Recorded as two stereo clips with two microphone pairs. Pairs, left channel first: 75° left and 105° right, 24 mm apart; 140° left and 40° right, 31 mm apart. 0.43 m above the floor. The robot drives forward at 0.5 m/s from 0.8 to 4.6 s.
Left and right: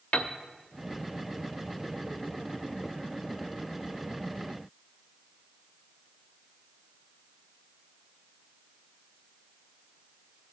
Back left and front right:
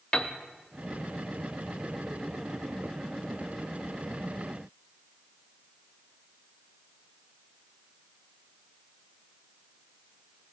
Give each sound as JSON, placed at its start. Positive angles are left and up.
{"t": 0.1, "sound": "a piano", "azimuth_deg": 85, "distance_m": 0.6}